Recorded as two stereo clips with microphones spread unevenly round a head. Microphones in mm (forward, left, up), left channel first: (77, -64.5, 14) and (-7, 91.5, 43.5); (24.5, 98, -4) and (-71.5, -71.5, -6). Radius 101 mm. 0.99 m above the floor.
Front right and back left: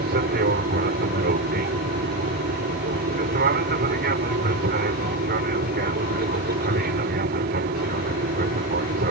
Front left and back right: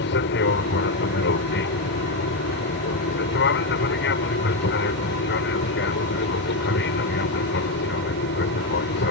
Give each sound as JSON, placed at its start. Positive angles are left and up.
{"t": 0.0, "sound": "an aircraft", "azimuth_deg": 90}